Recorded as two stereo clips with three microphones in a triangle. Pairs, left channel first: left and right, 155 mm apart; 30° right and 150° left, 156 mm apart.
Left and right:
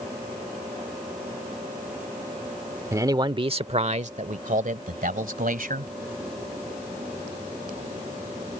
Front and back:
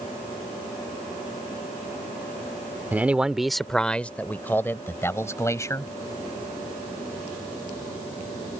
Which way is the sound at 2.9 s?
140° right.